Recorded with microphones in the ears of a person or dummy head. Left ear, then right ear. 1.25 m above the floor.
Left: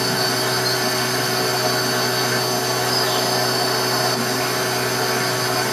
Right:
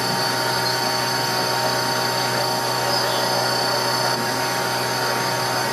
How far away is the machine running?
About 0.9 m.